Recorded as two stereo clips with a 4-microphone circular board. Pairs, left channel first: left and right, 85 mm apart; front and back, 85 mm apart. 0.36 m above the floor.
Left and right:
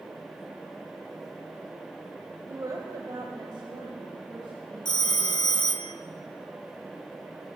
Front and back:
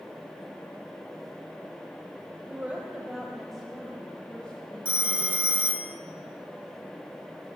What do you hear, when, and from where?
2.5 s a woman speaking: 120° right, 1.3 m; by 5.6 s 75° right, 3 m
4.8 s a phone ringing: 105° left, 0.8 m